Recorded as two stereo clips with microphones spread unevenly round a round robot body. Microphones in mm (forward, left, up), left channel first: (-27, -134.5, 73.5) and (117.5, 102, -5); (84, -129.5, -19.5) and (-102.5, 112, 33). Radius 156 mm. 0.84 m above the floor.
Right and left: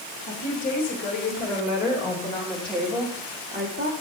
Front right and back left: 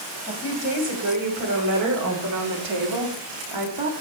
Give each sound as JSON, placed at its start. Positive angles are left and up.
{"t": 0.3, "sound": "a woman speaking", "azimuth_deg": -175, "distance_m": 4.5}